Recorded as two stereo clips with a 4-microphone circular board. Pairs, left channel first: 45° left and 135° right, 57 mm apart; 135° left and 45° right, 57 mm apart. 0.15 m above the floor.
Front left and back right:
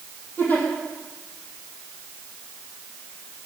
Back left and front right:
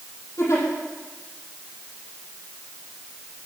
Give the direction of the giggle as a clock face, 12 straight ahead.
9 o'clock.